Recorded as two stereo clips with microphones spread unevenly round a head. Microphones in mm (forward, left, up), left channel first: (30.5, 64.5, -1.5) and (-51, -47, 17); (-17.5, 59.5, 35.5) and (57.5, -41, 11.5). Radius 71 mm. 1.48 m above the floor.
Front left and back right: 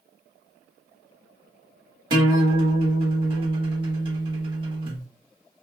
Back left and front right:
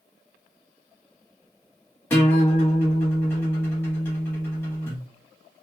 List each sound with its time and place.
2.1 s a guitar: 165° right, 1.1 m